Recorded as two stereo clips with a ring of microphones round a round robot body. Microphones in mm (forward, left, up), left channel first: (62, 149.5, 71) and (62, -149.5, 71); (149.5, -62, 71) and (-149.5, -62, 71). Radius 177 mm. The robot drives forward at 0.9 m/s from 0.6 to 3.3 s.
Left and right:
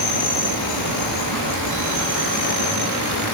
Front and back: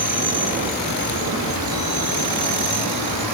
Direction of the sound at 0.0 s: 115° left.